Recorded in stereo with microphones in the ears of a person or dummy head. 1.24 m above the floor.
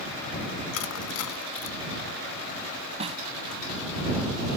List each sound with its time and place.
0.7 s crushing: 75° left (ahead or behind)
3.0 s a snare drum: 35° right (ahead or behind)